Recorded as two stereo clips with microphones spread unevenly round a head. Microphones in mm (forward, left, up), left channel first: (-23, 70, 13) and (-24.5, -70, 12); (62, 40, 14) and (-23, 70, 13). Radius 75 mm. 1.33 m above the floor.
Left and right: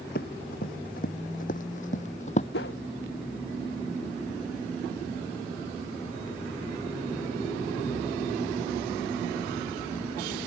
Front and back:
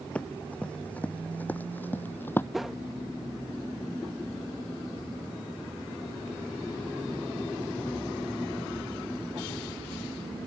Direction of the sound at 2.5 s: 75° left.